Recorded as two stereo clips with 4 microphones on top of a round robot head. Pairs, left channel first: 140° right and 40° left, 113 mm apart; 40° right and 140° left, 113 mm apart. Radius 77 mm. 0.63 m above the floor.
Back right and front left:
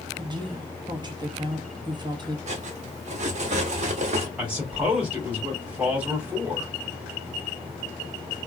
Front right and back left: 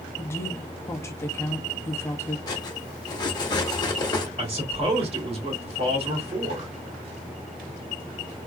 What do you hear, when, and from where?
0.2 s a woman speaking: 15° left, 0.9 m
2.5 s cutlery clinking: 15° left, 0.9 m
4.4 s a man speaking: 120° left, 2.5 m